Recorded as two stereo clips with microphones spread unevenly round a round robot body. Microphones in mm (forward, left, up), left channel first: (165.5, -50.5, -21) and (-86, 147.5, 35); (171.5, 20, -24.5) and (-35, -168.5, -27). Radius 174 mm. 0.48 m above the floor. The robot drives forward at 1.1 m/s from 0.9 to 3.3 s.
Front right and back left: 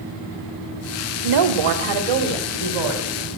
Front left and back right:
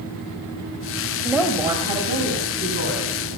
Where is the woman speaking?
130° left, 1.5 m; by 3.3 s 160° left, 3.5 m.